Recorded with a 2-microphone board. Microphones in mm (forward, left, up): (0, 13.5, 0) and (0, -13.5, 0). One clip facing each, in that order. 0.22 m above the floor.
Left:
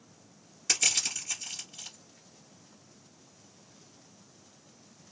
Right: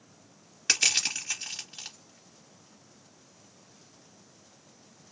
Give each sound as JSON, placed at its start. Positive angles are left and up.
{"t": 0.7, "sound": "crushing", "side_deg": -50, "distance_m": 1.8}